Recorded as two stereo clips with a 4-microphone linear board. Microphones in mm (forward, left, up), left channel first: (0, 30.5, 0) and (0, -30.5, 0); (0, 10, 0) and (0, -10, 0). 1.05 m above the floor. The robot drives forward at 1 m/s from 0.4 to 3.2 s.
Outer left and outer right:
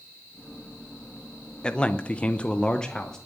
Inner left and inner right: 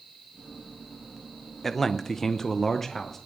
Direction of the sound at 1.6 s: 15° left (ahead or behind).